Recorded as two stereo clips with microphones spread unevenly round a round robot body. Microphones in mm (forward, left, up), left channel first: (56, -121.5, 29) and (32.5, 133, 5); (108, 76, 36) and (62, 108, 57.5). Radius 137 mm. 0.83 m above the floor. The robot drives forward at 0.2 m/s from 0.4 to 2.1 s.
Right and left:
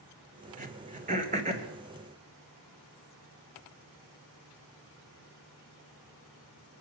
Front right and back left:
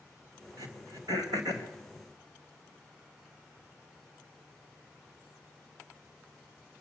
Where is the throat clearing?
160° left, 1.9 m.